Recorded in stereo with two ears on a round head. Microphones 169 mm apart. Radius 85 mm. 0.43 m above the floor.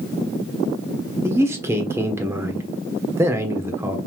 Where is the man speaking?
15° right (ahead or behind), 1.0 m.